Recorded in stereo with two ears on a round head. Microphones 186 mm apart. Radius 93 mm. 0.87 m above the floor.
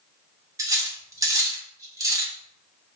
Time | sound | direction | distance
0.6 | cutlery clinking | 15° right (ahead or behind) | 0.7 m